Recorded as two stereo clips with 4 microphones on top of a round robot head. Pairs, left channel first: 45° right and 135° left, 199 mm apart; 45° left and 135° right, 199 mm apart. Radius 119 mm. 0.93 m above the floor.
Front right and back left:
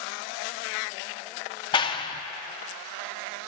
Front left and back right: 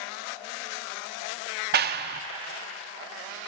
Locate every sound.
1.7 s a clap: 110° right, 0.5 m